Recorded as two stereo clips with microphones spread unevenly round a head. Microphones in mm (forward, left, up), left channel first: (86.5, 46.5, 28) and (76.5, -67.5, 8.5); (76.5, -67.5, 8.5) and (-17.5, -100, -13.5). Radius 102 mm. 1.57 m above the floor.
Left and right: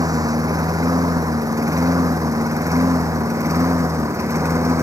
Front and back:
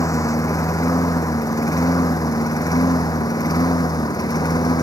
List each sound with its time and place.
0.0 s a lawn mower: 35° right; by 4.8 s 30° right